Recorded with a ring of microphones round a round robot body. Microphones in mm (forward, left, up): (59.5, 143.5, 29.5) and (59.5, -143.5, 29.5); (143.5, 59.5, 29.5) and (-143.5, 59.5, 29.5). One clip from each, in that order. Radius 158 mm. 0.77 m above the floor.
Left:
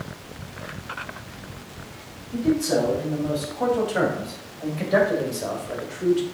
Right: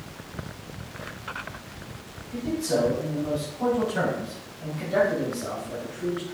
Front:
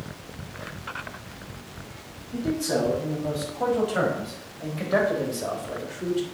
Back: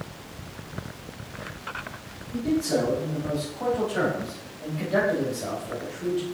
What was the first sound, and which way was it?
A man speaking, 45° left.